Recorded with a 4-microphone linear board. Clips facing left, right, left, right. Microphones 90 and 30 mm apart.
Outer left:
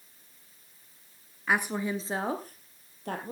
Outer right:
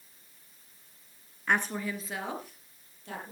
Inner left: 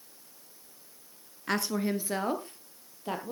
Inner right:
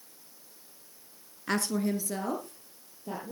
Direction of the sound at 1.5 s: 5° left (ahead or behind).